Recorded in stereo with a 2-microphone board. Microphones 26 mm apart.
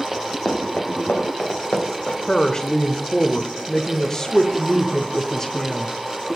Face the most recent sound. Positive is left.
turn(degrees=20)  # may be behind; listen again after turning